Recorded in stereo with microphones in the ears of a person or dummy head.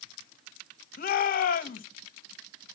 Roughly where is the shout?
Left.